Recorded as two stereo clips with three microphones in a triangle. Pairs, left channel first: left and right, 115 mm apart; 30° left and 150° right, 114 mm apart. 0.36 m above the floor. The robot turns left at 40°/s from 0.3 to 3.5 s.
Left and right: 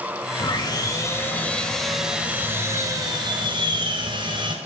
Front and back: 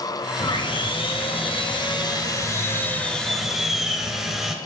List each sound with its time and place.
0.4 s sawing: 60° left, 2.0 m; by 4.5 s 65° right, 2.0 m